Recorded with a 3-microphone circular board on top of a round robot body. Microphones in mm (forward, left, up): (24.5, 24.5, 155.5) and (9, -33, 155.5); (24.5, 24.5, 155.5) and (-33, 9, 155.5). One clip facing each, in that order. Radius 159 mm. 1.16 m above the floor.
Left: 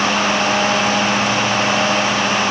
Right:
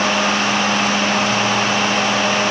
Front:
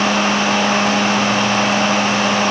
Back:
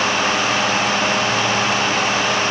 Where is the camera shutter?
I don't hear a camera shutter.